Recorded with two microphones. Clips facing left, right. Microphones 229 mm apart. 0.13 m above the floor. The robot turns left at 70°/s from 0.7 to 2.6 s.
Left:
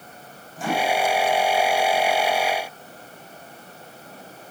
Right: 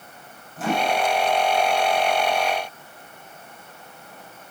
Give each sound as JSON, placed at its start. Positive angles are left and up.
{"t": 0.6, "sound": "a microwave", "side_deg": 0, "distance_m": 6.0}